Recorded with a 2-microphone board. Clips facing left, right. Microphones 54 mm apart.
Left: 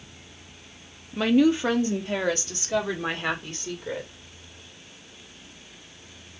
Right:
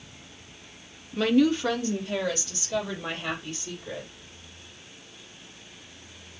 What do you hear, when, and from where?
1.1 s a woman speaking: 10° left (ahead or behind), 1.0 m; by 4.1 s 55° left (ahead or behind), 2.5 m